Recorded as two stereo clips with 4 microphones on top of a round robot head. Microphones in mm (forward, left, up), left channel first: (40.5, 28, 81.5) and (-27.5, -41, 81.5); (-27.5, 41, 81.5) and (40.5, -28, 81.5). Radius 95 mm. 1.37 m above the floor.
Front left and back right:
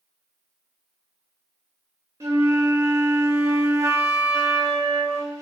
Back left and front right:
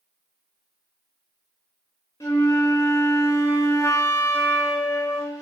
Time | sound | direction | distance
2.2 | a flute | straight behind | 0.7 m